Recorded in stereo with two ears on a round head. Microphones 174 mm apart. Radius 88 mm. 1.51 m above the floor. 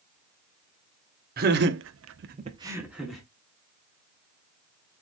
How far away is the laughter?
About 1.0 m.